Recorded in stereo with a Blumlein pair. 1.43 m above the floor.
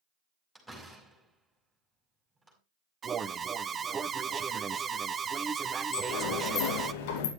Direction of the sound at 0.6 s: Straight ahead.